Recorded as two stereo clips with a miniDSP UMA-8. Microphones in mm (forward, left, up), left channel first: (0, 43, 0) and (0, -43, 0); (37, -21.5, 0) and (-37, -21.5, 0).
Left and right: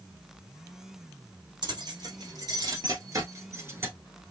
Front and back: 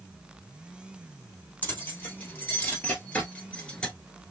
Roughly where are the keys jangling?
Ahead right.